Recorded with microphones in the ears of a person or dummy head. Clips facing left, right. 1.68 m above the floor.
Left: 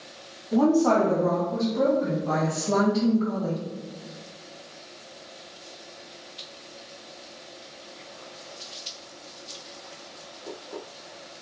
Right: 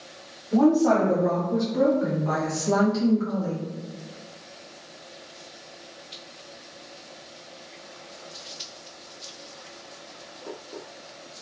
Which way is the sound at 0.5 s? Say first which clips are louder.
Right 1 dB; 5° left (ahead or behind).